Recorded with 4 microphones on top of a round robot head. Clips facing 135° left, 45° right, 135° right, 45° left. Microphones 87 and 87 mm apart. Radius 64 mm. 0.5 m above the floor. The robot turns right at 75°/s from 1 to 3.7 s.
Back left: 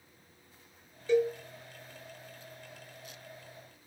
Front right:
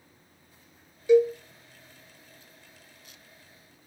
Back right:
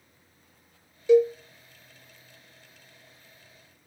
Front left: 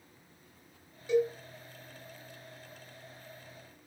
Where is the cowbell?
125° right, 0.5 m; by 1.3 s 105° right, 0.5 m.